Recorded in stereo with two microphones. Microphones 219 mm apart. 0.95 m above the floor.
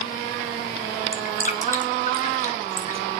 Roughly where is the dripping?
Left.